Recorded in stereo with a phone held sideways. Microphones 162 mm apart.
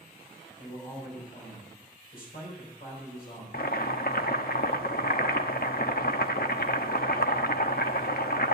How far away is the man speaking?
About 4.5 m.